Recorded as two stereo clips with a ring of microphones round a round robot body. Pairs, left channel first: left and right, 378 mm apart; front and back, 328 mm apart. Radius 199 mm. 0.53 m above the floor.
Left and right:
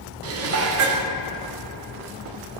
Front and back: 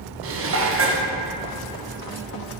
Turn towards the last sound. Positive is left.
turn(degrees=-135)